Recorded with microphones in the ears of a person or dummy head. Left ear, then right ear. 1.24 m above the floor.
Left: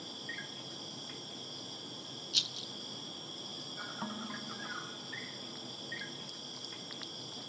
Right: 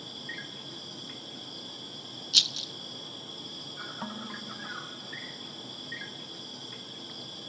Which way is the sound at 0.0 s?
5° left (ahead or behind).